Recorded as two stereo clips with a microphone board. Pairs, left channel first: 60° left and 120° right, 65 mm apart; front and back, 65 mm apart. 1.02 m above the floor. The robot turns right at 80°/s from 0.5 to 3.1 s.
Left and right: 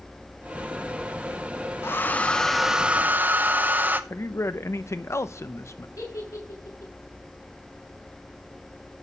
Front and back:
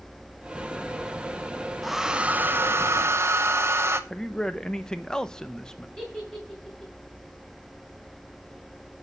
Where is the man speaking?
75° left, 0.8 m.